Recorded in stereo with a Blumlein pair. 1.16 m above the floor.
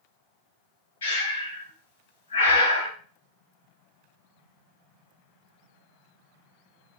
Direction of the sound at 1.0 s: 60° left.